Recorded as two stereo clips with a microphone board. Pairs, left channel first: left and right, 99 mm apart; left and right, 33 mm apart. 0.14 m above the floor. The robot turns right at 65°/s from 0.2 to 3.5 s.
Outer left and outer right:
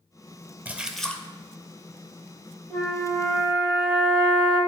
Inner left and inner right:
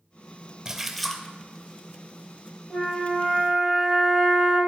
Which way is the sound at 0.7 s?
20° right.